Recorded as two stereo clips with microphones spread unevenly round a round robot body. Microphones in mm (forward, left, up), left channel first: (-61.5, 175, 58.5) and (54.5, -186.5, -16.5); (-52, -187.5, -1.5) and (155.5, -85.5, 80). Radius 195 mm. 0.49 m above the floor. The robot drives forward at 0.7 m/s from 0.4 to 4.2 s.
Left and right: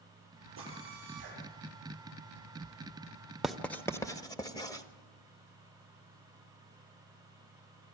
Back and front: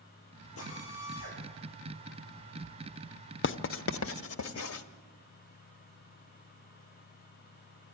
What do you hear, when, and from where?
0.6 s a drill: 135° right, 9.5 m; by 3.3 s 140° right, 11 m
3.4 s writing: 155° right, 0.6 m; by 4.8 s 165° right, 1.1 m